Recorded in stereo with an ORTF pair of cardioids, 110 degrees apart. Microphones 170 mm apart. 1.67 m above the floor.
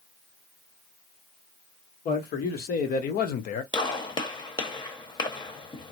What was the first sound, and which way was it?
A man speaking, 60° left.